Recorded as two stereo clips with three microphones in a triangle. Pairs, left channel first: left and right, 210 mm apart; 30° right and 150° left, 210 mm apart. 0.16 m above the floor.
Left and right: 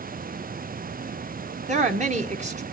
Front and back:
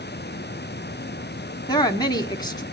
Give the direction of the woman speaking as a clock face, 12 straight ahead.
3 o'clock.